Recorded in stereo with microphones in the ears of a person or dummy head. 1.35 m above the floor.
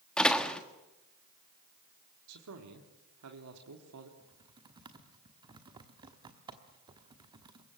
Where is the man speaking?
75° right (ahead or behind), 3 m.